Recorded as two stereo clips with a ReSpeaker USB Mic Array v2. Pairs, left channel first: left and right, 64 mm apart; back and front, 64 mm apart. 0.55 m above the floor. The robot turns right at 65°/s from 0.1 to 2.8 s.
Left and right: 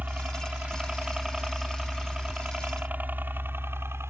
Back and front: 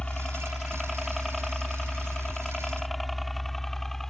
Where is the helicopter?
120° right; by 4.1 s 100° right.